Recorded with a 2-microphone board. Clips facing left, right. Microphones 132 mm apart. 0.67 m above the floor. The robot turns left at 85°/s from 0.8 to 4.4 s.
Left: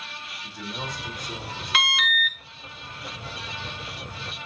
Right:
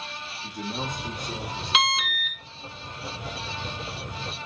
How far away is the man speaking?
About 1.4 m.